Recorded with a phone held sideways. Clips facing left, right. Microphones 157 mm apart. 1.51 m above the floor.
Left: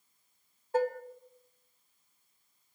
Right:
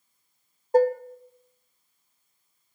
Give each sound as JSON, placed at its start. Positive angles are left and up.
{"t": 0.7, "sound": "dishes clattering", "side_deg": -40, "distance_m": 0.6}